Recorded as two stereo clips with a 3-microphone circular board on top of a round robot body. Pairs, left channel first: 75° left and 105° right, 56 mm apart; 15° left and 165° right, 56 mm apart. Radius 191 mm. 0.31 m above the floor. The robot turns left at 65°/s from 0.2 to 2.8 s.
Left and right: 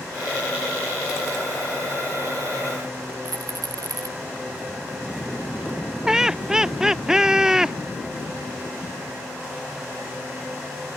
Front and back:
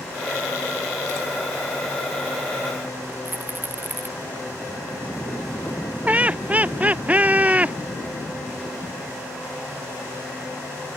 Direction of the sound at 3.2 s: 110° right.